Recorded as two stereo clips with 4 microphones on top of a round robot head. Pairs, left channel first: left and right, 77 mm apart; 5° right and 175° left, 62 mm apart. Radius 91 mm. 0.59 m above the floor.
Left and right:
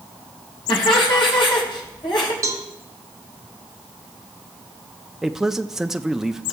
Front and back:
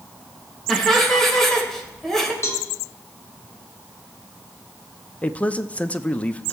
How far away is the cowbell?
About 1.3 m.